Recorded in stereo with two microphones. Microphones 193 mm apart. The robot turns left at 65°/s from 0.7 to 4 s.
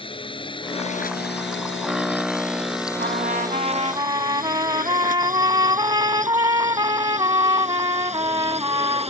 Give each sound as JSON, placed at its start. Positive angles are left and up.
{"t": 0.0, "sound": "a drone", "side_deg": 25}
{"t": 3.0, "sound": "a trumpet", "azimuth_deg": -85}